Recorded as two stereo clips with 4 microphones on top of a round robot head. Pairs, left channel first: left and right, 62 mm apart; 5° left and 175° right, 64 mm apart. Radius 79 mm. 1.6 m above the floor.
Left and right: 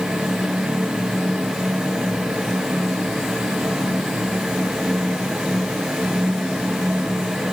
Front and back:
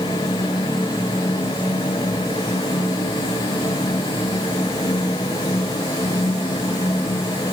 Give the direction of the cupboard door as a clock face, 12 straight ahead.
No cupboard door in this recording.